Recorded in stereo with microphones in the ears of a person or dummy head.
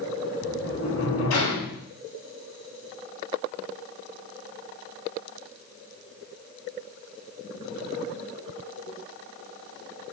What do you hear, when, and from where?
0.4 s a sliding door: 80° left, 3.5 m